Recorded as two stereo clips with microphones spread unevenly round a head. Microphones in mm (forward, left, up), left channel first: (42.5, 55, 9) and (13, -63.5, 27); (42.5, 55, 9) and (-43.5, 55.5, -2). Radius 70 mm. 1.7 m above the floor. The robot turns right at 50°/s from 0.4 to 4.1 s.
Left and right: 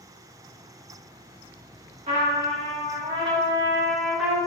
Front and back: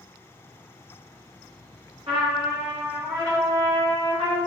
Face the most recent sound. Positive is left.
turn(degrees=-25)